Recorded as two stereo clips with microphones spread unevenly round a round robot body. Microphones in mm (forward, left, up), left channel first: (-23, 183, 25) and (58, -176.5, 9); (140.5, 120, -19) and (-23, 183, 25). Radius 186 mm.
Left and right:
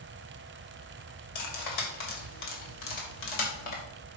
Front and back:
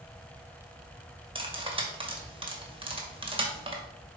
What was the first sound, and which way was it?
Cutlery clinking, 95° left.